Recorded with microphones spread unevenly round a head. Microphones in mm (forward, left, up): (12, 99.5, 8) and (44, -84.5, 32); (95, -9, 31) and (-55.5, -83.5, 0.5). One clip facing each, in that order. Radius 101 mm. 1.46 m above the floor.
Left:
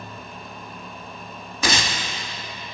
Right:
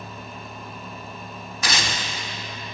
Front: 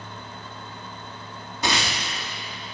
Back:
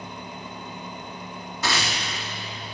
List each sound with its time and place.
1.6 s tearing paper: 100° left, 1.6 m